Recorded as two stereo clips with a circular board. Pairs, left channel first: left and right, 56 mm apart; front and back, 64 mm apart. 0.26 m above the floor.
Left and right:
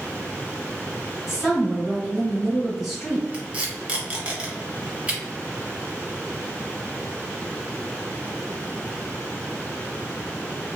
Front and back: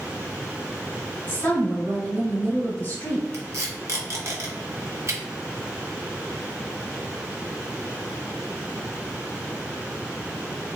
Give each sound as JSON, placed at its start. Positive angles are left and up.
{"t": 1.3, "sound": "a woman speaking", "azimuth_deg": -15, "distance_m": 1.6}
{"t": 3.3, "sound": "tape being pulled", "azimuth_deg": -150, "distance_m": 1.2}